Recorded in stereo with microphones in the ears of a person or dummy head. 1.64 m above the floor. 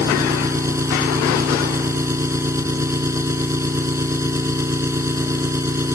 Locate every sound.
0.0 s an engine running: 15° right (ahead or behind)